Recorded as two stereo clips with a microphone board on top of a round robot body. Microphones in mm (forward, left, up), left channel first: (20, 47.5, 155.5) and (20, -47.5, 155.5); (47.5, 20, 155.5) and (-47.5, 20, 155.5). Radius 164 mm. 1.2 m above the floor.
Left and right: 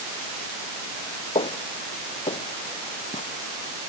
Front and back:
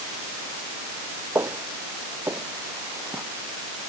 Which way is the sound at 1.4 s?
115° left.